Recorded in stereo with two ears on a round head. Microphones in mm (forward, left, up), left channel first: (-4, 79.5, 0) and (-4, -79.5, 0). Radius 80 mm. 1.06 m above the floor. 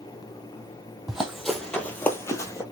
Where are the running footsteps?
5° right (ahead or behind), 1.4 m; by 2.6 s 20° left (ahead or behind), 1.1 m.